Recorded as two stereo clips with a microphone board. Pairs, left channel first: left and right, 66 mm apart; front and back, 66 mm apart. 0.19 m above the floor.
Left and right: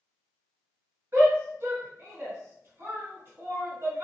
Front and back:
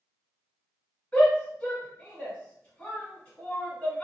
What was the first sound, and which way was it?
A shout, 65° right.